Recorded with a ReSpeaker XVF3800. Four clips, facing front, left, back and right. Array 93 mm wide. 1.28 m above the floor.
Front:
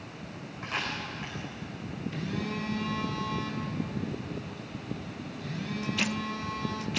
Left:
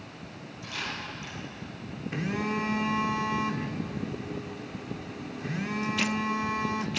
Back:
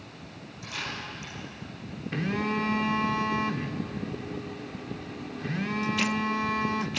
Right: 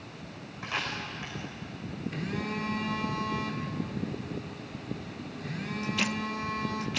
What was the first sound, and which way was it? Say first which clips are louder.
A camera shutter: right 3 dB, front 2 dB; 50° right.